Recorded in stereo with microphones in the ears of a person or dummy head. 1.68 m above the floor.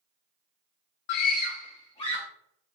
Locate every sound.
1.1 s a scream: 55° left (ahead or behind), 0.6 m; by 2.3 s 25° left (ahead or behind), 1.6 m